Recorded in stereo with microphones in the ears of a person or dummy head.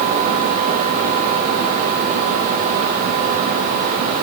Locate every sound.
0.0 s a fan: 40° right (ahead or behind), 3.5 m